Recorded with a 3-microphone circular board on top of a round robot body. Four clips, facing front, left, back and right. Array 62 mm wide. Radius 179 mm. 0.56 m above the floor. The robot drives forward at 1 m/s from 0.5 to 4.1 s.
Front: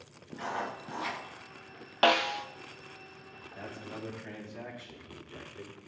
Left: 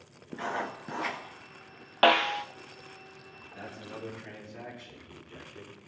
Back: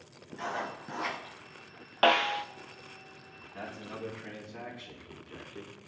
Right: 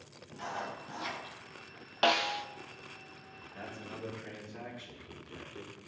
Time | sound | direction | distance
0.3 | writing | 90° left | 1.9 m
2.0 | a snare drum | 95° left | 0.8 m
3.4 | a man speaking | 170° right | 5.5 m